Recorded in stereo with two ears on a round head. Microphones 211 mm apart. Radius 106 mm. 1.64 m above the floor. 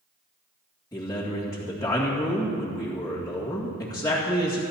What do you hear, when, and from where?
0.9 s a man speaking: 15° left (ahead or behind), 2 m